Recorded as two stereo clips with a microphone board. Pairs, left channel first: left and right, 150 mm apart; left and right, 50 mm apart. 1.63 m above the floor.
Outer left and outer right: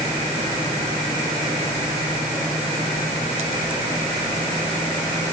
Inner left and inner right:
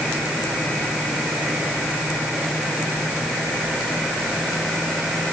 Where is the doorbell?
No doorbell in this recording.